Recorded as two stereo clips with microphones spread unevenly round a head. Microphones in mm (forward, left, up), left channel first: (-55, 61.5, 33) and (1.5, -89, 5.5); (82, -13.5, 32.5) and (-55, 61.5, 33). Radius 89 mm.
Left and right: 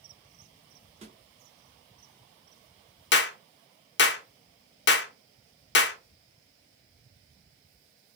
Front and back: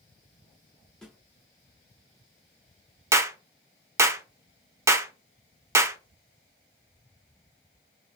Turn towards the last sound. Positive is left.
turn(degrees=80)